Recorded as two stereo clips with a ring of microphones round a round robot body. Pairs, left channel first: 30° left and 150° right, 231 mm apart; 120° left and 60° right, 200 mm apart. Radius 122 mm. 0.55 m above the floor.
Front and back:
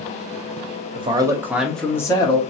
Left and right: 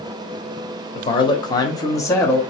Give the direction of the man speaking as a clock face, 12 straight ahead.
7 o'clock.